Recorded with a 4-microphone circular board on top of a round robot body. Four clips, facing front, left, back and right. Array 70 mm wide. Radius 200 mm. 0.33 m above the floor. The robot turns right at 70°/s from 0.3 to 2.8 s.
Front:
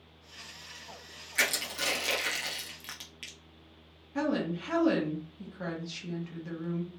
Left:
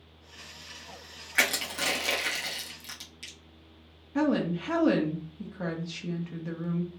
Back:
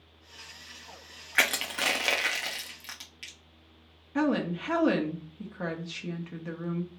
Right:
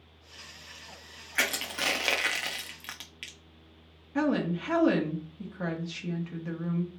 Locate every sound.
1.4 s crushing: 170° left, 1.1 m; by 3.4 s 90° right, 1.1 m
4.2 s a woman speaking: 170° right, 1.2 m